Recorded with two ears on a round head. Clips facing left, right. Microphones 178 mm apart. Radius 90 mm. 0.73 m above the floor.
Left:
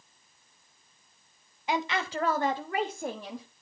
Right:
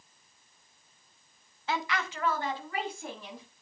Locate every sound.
1.7 s a woman speaking: 15° left (ahead or behind), 0.7 m; by 3.5 s 40° left (ahead or behind), 1.3 m